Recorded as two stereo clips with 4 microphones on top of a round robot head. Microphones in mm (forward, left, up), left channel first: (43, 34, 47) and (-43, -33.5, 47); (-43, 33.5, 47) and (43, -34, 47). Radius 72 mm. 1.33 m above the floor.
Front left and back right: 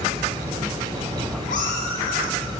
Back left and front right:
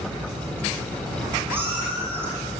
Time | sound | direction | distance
1.5 | a cat meowing | 30° left | 7 m